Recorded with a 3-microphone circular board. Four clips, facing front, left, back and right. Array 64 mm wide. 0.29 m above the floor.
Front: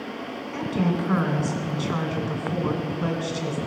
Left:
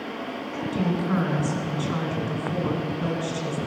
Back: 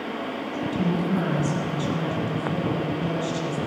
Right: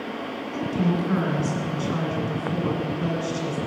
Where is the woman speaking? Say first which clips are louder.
Right 2 dB, front 1 dB; 10° left, 2.5 m.